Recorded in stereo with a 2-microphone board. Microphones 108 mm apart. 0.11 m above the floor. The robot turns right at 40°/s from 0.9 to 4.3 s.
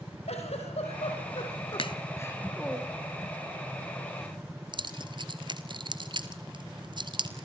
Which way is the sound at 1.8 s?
55° left (ahead or behind).